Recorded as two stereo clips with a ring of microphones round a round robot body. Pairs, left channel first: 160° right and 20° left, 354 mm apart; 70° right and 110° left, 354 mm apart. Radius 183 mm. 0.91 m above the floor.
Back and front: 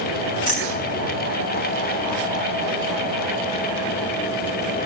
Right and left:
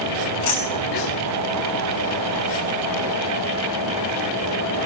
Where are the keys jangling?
95° right, 7.5 m.